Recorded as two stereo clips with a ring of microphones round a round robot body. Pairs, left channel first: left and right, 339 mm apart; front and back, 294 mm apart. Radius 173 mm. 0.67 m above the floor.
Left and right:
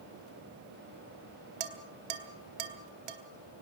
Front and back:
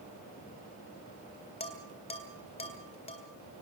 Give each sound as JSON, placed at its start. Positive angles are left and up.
{"t": 1.6, "sound": "dishes clattering", "azimuth_deg": -75, "distance_m": 1.9}